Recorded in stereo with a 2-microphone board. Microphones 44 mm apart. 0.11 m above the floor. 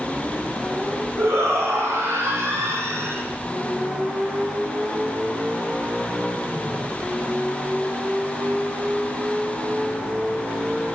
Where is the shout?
80° right, 7.5 m; by 3.2 s 70° right (ahead or behind), 6 m.